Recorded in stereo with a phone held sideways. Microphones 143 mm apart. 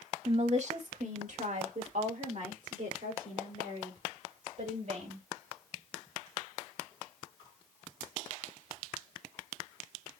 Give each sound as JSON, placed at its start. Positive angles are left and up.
{"t": 0.2, "sound": "a woman speaking", "side_deg": -45, "distance_m": 1.1}